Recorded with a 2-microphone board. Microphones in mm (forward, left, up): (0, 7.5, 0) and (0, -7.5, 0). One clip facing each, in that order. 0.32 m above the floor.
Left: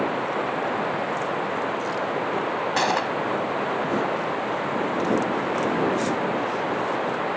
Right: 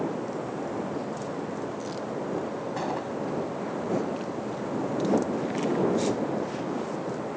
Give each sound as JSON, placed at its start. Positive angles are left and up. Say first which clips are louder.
{"t": 0.0, "sound": "running water", "louder": "left 6 dB", "side_deg": 50}
{"t": 2.8, "sound": "a gunshot", "louder": "left 10 dB", "side_deg": 55}